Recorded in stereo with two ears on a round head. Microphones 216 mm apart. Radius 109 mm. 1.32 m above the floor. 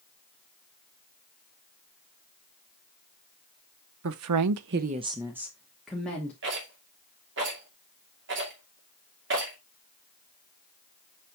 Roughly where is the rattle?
Right.